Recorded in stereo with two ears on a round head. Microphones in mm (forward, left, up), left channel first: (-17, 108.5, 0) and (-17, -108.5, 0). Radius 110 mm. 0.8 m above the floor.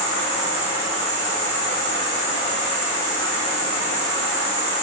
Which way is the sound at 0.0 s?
50° right (ahead or behind).